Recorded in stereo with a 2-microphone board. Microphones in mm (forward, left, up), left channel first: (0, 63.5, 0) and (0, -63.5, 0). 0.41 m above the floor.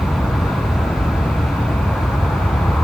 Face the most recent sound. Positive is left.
turn(degrees=5)  # may be behind; listen again after turning